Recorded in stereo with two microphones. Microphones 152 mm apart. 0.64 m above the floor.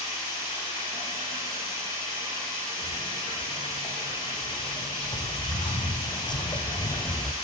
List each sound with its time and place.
0.0 s running water: 35° left (ahead or behind), 8 m
2.8 s footsteps: 35° left (ahead or behind), 5 m; by 7.3 s 5° left (ahead or behind), 0.6 m